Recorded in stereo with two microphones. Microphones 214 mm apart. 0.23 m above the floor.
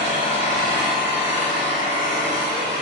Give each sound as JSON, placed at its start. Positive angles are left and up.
{"t": 0.0, "sound": "an engine running", "side_deg": 30, "distance_m": 1.7}